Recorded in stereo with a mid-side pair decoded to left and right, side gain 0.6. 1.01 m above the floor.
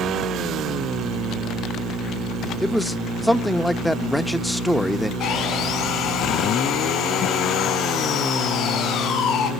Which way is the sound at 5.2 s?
60° left.